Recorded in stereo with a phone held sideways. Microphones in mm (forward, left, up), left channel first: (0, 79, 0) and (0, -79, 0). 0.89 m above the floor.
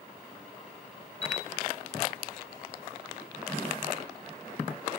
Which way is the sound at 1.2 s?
20° right (ahead or behind).